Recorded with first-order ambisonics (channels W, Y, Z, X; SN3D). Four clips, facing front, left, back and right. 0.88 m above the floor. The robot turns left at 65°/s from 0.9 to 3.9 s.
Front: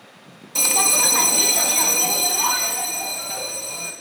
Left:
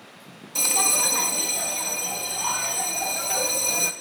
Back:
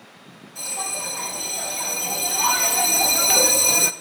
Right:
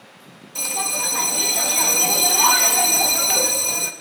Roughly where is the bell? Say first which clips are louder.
Left 2 dB, front 11 dB; ahead.